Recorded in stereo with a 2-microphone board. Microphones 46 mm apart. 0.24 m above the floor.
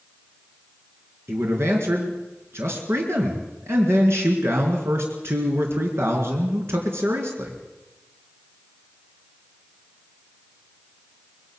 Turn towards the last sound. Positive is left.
turn(degrees=-60)  # may be behind; listen again after turning